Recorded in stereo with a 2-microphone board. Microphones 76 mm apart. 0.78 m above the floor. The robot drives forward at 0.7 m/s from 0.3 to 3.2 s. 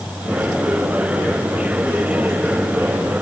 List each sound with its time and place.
Only background noise.